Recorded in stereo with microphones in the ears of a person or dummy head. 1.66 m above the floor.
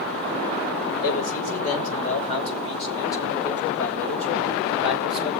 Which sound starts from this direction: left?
A man speaking, at 1.0 s.